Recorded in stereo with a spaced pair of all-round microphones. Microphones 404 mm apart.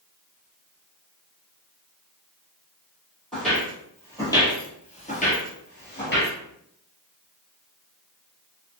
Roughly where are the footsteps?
Centre.